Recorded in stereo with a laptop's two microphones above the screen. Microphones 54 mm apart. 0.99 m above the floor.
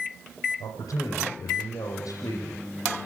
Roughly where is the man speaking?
Left.